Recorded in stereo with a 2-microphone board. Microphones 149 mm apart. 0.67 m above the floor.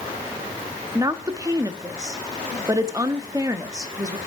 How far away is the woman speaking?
About 0.7 m.